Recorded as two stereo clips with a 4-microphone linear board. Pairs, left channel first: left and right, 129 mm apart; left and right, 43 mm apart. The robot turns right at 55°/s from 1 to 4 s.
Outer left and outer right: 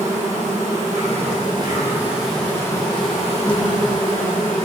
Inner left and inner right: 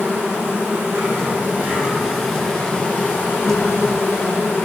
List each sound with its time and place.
0.0 s an insect: 70° right, 3 m; by 4.7 s 95° left, 3 m